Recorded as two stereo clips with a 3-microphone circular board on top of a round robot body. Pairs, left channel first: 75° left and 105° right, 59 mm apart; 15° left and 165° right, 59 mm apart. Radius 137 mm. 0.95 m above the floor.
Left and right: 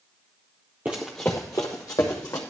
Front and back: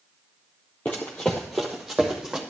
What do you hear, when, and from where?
0.8 s running footsteps: 50° right, 1.0 m; by 2.4 s 115° left, 1.9 m